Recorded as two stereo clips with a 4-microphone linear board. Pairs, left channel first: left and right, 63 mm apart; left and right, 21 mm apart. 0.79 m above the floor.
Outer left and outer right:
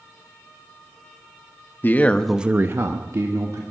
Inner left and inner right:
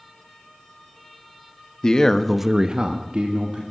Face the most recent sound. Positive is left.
turn(degrees=-65)  # may be behind; listen again after turning